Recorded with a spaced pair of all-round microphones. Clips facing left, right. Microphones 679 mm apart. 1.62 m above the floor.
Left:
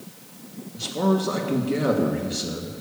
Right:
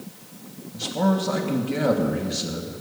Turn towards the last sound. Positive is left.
turn(degrees=-20)  # may be behind; listen again after turning